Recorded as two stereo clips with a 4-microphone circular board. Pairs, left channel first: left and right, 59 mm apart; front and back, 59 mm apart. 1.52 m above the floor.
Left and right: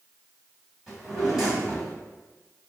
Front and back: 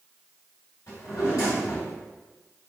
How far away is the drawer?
About 1.7 m.